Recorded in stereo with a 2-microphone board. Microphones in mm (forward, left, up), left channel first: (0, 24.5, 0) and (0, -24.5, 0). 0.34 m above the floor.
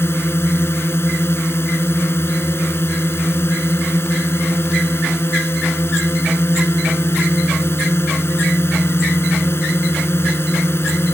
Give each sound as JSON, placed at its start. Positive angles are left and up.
{"t": 0.0, "sound": "a drone", "side_deg": 55}